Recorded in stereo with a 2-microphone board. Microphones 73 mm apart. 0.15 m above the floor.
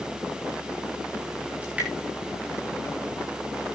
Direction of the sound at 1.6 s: 20° right (ahead or behind).